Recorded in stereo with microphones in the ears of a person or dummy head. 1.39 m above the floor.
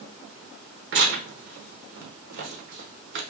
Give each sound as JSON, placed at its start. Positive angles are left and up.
{"t": 0.9, "sound": "tearing paper", "side_deg": -65, "distance_m": 0.9}